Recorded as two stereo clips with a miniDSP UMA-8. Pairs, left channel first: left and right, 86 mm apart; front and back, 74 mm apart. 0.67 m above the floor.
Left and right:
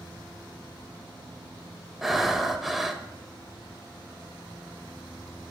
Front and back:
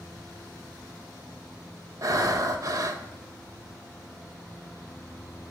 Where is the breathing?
175° right, 0.5 m.